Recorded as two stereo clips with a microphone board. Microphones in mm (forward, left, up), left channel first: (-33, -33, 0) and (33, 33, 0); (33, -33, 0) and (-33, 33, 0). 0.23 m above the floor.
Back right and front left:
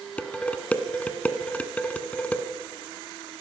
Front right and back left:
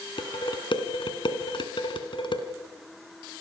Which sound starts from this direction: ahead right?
Dishes clattering, at 0.2 s.